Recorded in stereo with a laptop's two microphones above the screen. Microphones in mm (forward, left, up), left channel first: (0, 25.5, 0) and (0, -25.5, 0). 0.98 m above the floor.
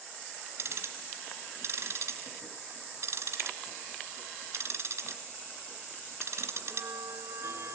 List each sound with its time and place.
0.6 s ticking: 60° right (ahead or behind), 3 m